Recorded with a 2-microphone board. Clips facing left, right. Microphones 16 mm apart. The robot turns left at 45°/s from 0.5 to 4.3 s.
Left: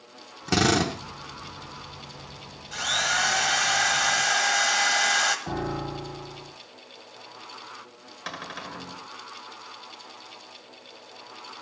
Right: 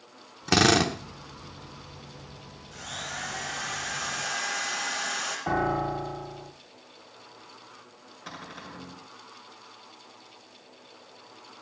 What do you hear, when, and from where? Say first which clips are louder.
0.5 s a drill: right 1 dB; 20° right (ahead or behind), 1.4 m; by 1.0 s 15° right (ahead or behind), 1.4 m
2.7 s a drill: left 12 dB; 135° left, 1.6 m; by 5.4 s 65° left, 1.6 m
5.5 s a piano: right 4 dB; 40° right (ahead or behind), 1.8 m
8.3 s a cupboard door: left 6 dB; 40° left (ahead or behind), 1.9 m